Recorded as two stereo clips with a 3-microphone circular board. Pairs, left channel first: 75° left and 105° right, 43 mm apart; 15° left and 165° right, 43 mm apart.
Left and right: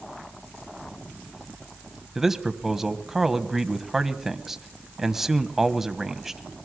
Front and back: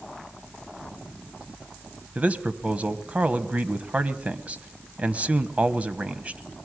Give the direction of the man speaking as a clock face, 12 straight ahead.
6 o'clock.